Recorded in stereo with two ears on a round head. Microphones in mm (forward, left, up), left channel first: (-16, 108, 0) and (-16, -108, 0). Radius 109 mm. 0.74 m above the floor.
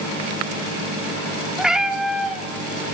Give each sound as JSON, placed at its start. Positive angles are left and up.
{"t": 1.6, "sound": "a cat meowing", "side_deg": -5, "distance_m": 0.8}